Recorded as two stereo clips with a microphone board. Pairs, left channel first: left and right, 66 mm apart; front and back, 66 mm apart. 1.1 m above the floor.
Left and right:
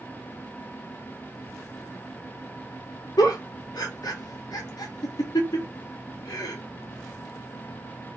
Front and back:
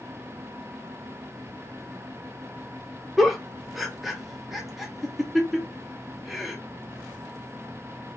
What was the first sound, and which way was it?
A giggle, 90° left.